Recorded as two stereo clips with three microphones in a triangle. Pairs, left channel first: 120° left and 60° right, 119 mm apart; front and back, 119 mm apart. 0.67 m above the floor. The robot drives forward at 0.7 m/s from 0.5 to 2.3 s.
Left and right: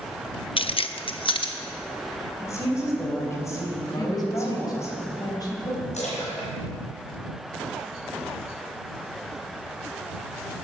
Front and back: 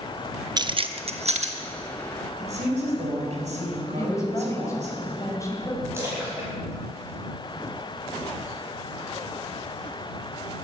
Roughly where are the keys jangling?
Behind left.